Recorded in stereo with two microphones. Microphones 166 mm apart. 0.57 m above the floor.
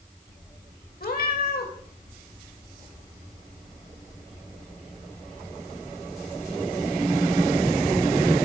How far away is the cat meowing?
About 1.3 m.